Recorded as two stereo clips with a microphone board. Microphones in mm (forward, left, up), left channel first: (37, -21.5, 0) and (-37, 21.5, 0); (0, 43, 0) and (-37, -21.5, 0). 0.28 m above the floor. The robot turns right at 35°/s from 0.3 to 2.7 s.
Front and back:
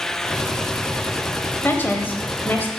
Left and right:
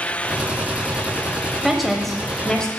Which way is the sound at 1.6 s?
40° right.